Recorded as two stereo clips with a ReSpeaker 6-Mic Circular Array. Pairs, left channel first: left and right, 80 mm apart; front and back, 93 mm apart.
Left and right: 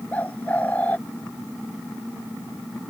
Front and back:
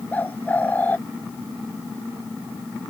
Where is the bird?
45° left.